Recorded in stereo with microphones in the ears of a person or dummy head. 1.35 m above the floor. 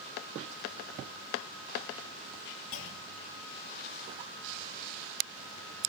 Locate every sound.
2.7 s a clunk: 65° left (ahead or behind), 3 m